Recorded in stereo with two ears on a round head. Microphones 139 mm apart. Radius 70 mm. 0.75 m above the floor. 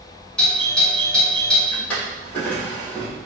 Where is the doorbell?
5° left (ahead or behind), 1.1 m.